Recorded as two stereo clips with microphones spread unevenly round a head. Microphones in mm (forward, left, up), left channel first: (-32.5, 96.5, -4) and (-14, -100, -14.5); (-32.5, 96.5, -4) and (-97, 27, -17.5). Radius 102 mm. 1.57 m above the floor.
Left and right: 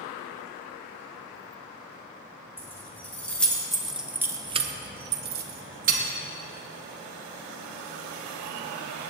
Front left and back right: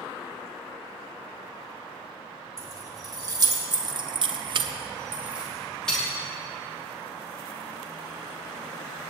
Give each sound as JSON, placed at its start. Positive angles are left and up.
{"t": 2.6, "sound": "keys jangling", "azimuth_deg": 175, "distance_m": 2.5}